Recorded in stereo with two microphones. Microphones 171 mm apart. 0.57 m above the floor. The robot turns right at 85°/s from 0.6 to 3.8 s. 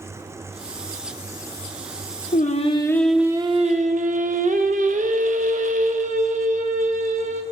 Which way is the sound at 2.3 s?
115° left.